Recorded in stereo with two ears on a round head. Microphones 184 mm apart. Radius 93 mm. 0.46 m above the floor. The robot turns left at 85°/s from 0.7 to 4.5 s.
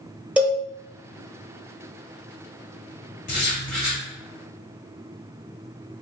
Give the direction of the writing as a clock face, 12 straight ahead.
11 o'clock.